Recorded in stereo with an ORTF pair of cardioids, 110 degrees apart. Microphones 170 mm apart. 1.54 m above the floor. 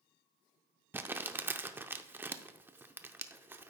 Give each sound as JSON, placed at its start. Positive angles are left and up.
{"t": 0.9, "sound": "crumpling", "azimuth_deg": -10, "distance_m": 0.6}